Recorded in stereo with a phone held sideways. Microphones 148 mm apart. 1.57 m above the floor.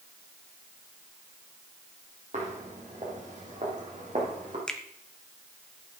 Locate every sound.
2.3 s footsteps: 50° right (ahead or behind), 2.5 m; by 4.6 s 60° right (ahead or behind), 4 m
4.7 s a finger snap: 5° left (ahead or behind), 0.9 m